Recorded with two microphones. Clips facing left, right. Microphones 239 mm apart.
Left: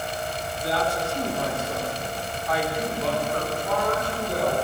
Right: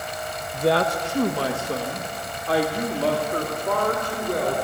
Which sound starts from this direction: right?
A woman speaking, at 0.5 s.